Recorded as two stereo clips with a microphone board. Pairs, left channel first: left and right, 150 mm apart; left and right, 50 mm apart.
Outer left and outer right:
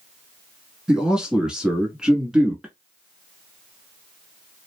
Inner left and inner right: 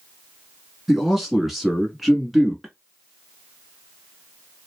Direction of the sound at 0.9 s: 5° right (ahead or behind).